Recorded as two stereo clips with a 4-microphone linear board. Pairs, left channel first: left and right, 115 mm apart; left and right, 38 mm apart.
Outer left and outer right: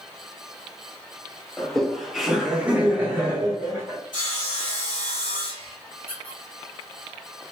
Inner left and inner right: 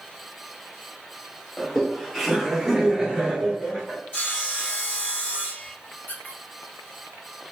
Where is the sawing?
40° left (ahead or behind), 1.6 m.